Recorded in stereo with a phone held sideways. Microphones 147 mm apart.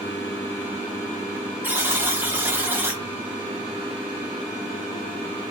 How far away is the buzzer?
About 1.2 m.